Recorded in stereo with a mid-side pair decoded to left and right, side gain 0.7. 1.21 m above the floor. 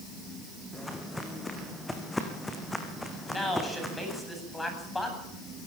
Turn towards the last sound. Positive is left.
turn(degrees=10)